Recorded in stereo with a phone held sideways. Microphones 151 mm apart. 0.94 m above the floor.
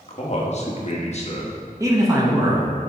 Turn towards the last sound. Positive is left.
turn(degrees=-20)  # may be behind; listen again after turning